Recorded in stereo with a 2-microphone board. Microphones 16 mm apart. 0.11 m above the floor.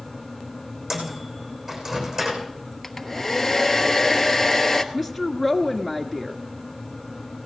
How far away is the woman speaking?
About 1.3 m.